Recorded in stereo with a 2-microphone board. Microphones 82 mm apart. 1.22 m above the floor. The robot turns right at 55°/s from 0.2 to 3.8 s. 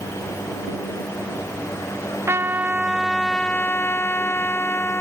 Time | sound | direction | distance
2.3 | a trumpet | 45° right | ?